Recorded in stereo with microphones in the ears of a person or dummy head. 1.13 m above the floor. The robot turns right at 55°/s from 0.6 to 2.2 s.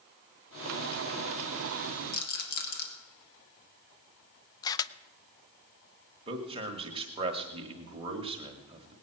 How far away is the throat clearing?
No throat clearing in this recording.